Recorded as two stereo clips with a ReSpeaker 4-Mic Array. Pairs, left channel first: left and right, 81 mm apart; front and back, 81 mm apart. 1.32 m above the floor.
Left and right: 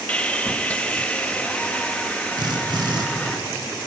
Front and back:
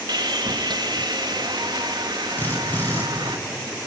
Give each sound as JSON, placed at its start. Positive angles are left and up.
{"t": 0.1, "sound": "sawing", "azimuth_deg": 160, "distance_m": 1.0}
{"t": 2.4, "sound": "a drill", "azimuth_deg": -65, "distance_m": 4.5}